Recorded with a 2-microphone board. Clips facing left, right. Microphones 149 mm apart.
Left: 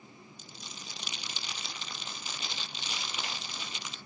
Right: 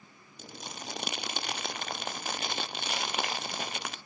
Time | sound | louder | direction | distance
0.4 | crumpling | right 11 dB | 60° right (ahead or behind) | 0.5 m